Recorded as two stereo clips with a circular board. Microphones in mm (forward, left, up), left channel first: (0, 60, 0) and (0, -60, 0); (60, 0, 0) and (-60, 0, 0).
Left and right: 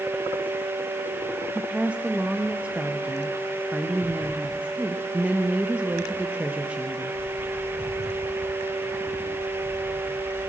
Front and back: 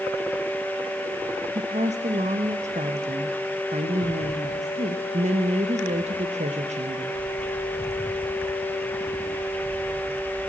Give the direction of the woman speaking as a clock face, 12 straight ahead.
6 o'clock.